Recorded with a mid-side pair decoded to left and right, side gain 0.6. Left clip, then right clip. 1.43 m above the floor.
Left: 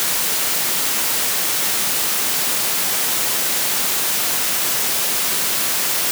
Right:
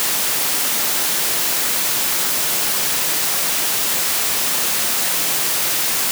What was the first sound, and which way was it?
Only background noise.